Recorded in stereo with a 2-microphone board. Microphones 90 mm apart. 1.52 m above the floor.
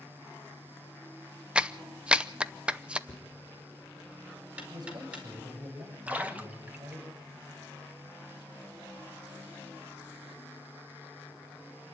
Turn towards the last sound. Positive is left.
turn(degrees=-20)  # may be behind; listen again after turning